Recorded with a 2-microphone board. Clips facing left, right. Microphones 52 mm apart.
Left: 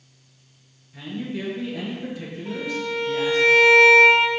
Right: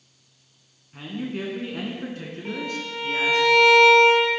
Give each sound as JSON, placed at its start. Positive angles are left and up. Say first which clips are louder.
{"t": 0.9, "sound": "a man speaking", "louder": "even", "side_deg": -50, "distance_m": 2.5}
{"t": 2.5, "sound": "a violin", "louder": "left 3 dB", "side_deg": -65, "distance_m": 3.5}